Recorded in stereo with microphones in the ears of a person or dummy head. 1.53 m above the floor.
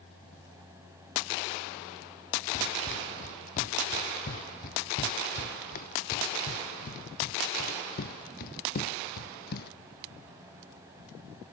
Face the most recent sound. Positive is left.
turn(degrees=55)  # may be behind; listen again after turning